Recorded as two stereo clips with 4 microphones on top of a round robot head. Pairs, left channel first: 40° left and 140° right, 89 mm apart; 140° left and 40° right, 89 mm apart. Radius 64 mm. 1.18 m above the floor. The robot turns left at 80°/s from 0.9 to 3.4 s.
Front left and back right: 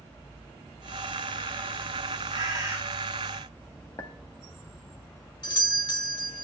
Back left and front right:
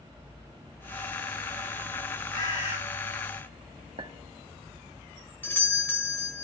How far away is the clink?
About 1.2 m.